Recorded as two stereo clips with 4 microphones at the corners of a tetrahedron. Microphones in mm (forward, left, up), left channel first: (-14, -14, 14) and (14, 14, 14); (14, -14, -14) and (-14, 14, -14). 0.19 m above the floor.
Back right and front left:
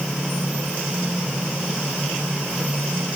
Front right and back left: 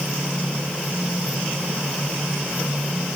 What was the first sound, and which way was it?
Only background noise.